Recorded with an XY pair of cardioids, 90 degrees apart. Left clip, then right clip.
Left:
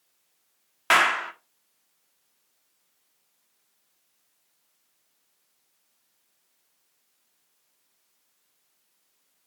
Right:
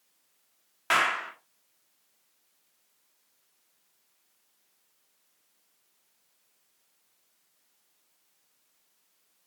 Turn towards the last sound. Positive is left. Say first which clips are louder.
# left 5 dB
turn(degrees=50)